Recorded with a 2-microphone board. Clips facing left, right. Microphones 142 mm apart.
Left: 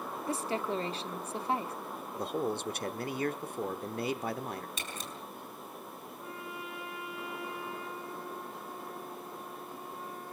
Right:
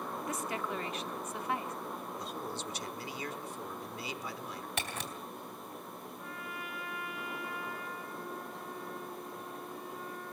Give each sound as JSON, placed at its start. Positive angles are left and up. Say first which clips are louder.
{"t": 0.3, "sound": "a woman speaking", "louder": "left 6 dB", "side_deg": 30, "distance_m": 1.3}
{"t": 2.1, "sound": "a man speaking", "louder": "left 7 dB", "side_deg": 55, "distance_m": 1.1}
{"t": 4.8, "sound": "a camera shutter", "louder": "right 3 dB", "side_deg": -70, "distance_m": 3.5}
{"t": 6.2, "sound": "a trumpet", "louder": "left 3 dB", "side_deg": 25, "distance_m": 4.0}